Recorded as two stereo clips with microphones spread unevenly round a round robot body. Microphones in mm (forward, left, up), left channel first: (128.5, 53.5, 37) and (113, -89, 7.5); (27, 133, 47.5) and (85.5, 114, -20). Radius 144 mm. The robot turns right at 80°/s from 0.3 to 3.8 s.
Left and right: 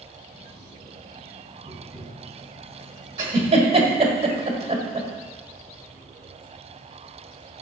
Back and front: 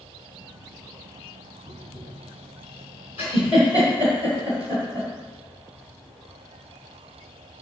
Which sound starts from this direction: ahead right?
Tapping, at 1.6 s.